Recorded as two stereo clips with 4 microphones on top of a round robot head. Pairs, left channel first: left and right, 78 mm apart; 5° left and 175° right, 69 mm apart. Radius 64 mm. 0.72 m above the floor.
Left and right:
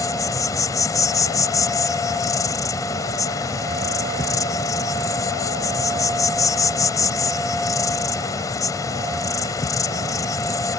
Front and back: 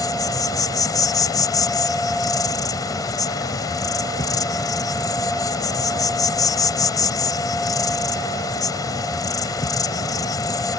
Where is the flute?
I don't hear a flute.